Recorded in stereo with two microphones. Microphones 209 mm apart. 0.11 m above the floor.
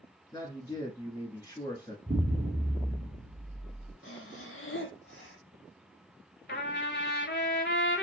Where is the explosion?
15° right (ahead or behind), 1.9 m.